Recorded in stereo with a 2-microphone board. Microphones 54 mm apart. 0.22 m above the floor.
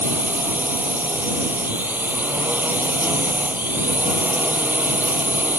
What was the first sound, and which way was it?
A drone, 35° right (ahead or behind).